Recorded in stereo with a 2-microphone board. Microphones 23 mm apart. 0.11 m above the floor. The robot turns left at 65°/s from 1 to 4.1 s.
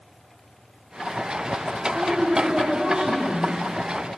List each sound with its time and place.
1.9 s a woman speaking: 15° right, 2.0 m; by 3.5 s 120° right, 2.0 m